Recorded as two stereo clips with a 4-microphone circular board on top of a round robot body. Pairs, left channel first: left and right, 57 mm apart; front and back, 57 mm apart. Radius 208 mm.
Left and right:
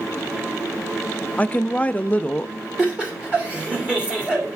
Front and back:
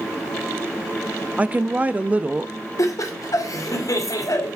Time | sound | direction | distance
1.4 | a woman speaking | 135° left | 0.6 m
2.8 | laughter | 15° right | 2.5 m